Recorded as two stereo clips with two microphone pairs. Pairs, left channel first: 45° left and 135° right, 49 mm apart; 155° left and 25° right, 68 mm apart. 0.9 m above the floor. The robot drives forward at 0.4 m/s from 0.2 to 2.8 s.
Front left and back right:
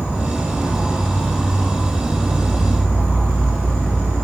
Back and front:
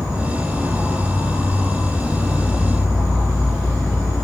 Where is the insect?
95° right, 1.3 m; by 4.2 s 135° right, 1.7 m.